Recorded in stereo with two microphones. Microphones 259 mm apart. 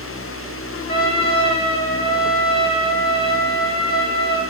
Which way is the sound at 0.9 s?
20° left (ahead or behind).